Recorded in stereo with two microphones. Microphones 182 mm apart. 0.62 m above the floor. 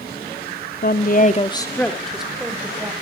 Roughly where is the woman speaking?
Left.